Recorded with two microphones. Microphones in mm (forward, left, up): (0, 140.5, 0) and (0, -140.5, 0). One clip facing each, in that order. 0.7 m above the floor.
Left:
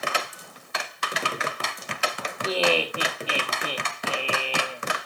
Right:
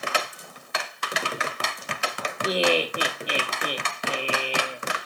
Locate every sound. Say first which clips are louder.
2.4 s laughter: right 1 dB; 15° right (ahead or behind), 1.2 m